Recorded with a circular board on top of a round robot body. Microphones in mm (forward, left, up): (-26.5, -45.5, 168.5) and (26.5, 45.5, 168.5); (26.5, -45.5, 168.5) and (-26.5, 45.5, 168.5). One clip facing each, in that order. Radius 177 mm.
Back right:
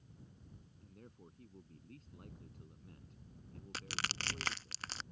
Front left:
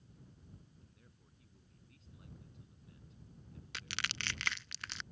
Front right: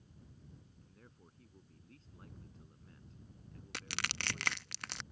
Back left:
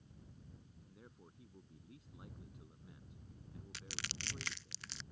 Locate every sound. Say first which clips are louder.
0.8 s a man speaking: back right 9 dB, back left 2 dB; 160° right
3.7 s crushing: back right 1 dB, front right 9 dB; 70° right